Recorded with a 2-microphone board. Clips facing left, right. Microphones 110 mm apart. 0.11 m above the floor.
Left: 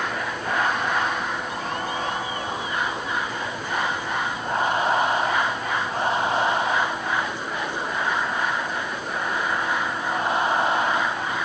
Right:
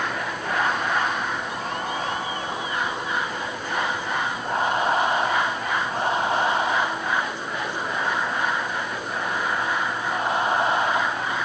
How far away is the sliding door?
I don't hear a sliding door.